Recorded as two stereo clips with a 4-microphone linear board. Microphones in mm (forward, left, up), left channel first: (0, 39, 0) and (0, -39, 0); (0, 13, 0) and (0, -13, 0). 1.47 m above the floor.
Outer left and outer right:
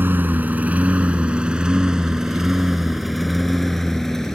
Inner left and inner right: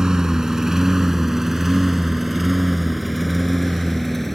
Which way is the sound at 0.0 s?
25° right (ahead or behind).